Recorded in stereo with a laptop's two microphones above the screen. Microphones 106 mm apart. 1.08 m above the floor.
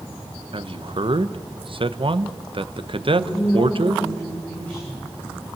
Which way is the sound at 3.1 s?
15° left (ahead or behind).